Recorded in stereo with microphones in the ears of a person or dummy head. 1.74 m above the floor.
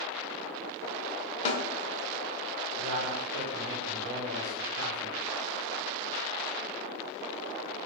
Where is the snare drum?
40° left (ahead or behind), 0.6 m.